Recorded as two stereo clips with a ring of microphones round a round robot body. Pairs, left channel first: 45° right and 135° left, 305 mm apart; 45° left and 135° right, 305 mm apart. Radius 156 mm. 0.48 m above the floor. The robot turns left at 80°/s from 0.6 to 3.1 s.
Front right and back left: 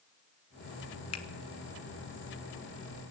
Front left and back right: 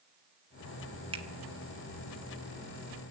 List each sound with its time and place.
1.1 s a finger snap: 65° right, 1.3 m; by 1.2 s 75° right, 1.3 m